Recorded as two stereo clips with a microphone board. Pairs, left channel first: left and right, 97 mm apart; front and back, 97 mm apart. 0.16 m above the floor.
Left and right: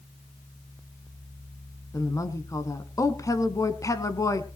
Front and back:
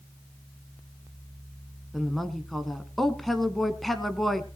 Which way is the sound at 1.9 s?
85° left.